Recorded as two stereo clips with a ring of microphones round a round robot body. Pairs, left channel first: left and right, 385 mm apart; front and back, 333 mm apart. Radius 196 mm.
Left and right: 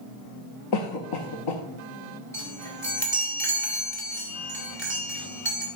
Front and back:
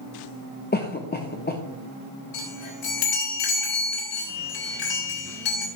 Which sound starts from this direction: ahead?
A chime, at 2.3 s.